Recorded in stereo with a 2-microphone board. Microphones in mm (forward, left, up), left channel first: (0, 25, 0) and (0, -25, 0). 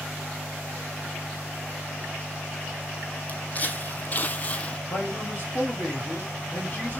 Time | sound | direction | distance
3.3 | footsteps | 35° left (ahead or behind) | 1.1 m
4.9 | a man speaking | 40° left (ahead or behind) | 1.8 m